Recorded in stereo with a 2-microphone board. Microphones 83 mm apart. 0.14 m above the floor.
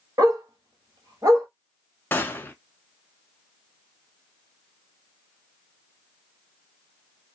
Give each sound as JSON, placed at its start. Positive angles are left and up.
{"t": 0.2, "sound": "a dog barking", "side_deg": -50, "distance_m": 1.2}
{"t": 2.1, "sound": "a gunshot", "side_deg": 25, "distance_m": 0.7}